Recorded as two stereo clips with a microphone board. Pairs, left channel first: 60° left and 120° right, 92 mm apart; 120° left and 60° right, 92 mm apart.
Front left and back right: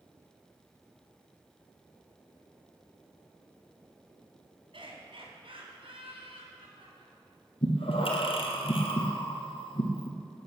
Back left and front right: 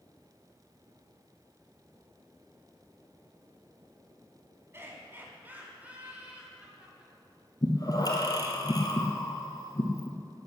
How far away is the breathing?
About 2.5 m.